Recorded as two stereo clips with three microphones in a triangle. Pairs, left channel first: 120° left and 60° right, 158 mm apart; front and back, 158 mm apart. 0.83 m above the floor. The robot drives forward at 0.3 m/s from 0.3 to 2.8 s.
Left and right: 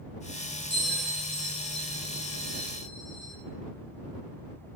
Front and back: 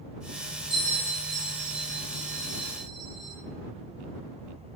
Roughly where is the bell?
Behind right.